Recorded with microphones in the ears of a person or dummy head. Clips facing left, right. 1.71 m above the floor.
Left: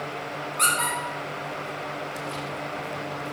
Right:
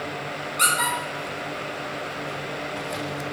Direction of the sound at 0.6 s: 15° right (ahead or behind).